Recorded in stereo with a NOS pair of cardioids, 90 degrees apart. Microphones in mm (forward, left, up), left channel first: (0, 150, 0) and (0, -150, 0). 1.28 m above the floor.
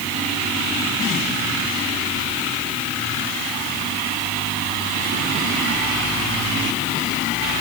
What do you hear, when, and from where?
Only background noise.